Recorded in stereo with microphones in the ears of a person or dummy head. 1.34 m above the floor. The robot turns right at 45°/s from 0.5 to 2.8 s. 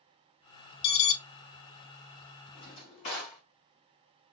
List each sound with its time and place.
0.8 s an alarm: 30° left (ahead or behind), 1.1 m; by 1.2 s 40° left (ahead or behind), 1.1 m
2.5 s a drawer: 45° left (ahead or behind), 2.5 m; by 3.4 s 35° left (ahead or behind), 2.5 m